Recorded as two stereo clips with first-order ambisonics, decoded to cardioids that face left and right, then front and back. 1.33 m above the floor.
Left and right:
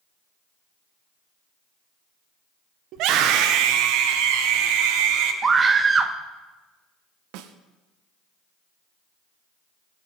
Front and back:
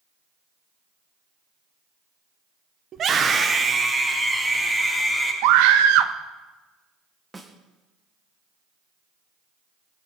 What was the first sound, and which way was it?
A scream, 125° right.